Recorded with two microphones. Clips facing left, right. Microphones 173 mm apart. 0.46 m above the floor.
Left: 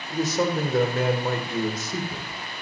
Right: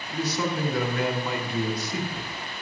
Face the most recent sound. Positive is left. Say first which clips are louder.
# left 4 dB
turn(degrees=45)  # may be behind; listen again after turning